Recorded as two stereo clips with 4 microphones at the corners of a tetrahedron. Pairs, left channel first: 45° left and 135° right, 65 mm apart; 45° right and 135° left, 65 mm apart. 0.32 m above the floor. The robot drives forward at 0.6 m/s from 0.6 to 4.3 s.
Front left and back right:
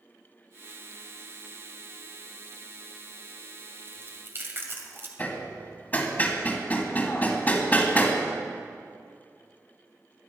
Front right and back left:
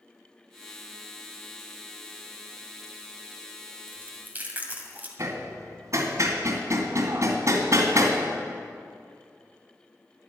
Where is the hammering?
105° left, 2 m.